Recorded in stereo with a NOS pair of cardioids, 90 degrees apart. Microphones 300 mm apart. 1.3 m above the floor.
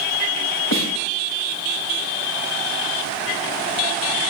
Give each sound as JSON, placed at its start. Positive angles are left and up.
{"t": 0.7, "sound": "a snare drum", "azimuth_deg": 65, "distance_m": 10.0}